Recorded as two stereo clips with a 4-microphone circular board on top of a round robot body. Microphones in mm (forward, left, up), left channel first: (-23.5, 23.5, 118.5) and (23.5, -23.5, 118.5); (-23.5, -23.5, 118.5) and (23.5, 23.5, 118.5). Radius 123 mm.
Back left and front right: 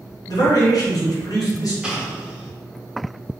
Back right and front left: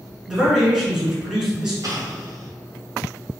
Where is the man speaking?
125° left, 2.0 m.